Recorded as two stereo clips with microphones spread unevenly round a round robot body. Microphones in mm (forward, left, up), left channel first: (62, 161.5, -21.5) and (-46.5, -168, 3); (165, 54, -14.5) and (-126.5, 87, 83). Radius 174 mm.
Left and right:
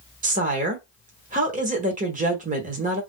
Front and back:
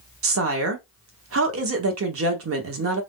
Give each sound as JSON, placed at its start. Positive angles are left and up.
{"t": 0.2, "sound": "a woman speaking", "azimuth_deg": -160, "distance_m": 1.2}